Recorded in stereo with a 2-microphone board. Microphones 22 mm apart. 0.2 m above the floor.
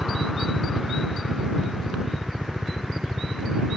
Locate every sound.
0.0 s a helicopter: 20° left (ahead or behind); by 3.8 s 10° left (ahead or behind)